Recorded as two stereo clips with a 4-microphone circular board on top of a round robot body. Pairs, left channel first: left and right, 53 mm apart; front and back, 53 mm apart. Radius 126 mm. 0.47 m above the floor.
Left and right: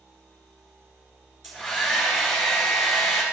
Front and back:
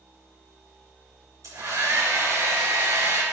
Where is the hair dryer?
Straight behind, 4.5 m.